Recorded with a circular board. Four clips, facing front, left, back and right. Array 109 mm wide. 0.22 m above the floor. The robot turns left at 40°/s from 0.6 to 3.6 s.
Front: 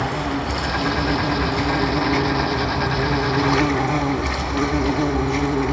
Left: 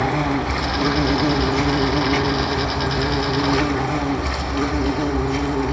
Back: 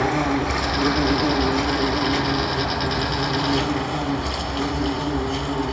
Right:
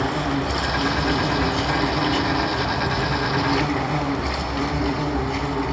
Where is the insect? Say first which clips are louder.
Left 3 dB, back 3 dB; 120° left, 2.5 m; by 5.7 s straight ahead, 2.5 m.